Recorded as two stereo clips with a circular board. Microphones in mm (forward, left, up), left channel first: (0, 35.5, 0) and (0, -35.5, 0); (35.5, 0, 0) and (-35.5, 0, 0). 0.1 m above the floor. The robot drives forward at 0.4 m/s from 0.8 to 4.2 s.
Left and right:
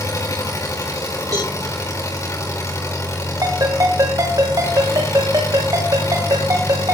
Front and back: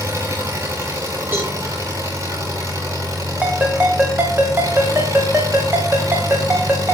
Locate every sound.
0.0 s an engine running: 130° left, 5.5 m; by 6.9 s 140° left, 6.5 m
1.3 s a cowbell: 120° right, 9.5 m
3.4 s a ringtone: 115° right, 4 m; by 6.9 s 120° right, 4 m